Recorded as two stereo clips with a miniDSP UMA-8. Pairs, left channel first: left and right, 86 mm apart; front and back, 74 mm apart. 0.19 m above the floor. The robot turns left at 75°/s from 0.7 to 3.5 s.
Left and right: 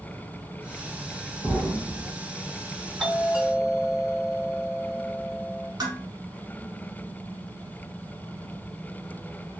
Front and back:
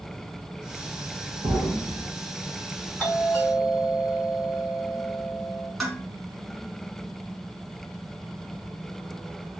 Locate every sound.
1.4 s an explosion: 175° left, 2 m; by 2.1 s 125° left, 2 m
3.0 s a doorbell: 5° right, 1.9 m; by 5.7 s 40° right, 1.9 m
5.8 s dishes clattering: 90° right, 1.3 m